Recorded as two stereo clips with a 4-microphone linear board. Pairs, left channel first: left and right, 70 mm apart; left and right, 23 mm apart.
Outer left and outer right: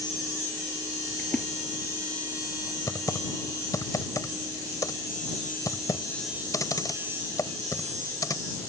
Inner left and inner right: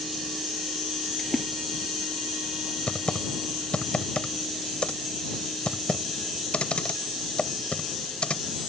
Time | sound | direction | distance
1.2 | a splash | 15° left (ahead or behind) | ?
2.9 | typing on a keyboard | 55° left (ahead or behind) | ?